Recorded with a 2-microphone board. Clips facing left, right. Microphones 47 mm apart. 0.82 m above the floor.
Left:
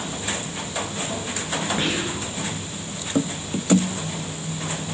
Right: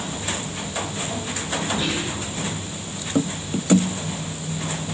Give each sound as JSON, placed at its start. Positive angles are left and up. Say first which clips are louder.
{"t": 1.8, "sound": "whispering", "louder": "left 1 dB", "side_deg": 45, "distance_m": 9.5}